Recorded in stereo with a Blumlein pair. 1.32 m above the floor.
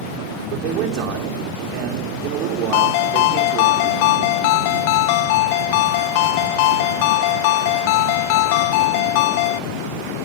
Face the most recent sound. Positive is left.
turn(degrees=45)